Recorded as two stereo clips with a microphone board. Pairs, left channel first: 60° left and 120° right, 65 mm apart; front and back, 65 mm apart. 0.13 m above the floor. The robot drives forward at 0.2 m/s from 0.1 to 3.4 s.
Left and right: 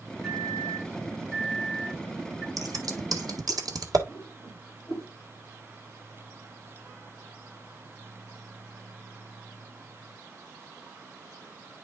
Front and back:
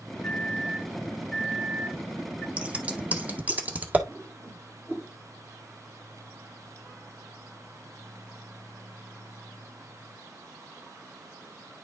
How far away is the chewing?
No chewing in this recording.